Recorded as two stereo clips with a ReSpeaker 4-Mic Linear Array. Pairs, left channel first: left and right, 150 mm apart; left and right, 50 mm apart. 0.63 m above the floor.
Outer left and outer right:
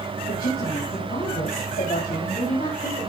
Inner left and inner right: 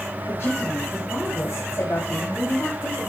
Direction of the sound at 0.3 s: 80° left.